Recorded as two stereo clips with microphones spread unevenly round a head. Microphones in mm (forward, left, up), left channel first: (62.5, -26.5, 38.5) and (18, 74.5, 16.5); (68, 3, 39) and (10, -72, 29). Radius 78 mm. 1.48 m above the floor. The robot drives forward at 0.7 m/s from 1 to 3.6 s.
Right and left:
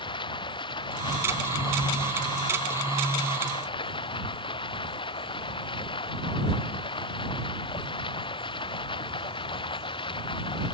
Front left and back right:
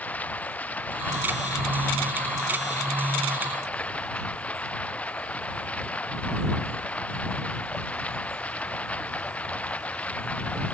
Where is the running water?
20° right; by 10.7 s 25° right.